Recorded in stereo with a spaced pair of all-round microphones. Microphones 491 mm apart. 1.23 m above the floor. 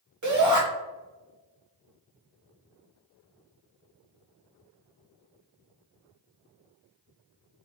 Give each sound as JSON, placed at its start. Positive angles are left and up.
{"t": 0.2, "sound": "a shout", "side_deg": -35, "distance_m": 1.1}